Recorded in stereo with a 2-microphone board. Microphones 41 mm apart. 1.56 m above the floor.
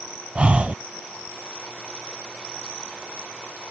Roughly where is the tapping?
No tapping in this recording.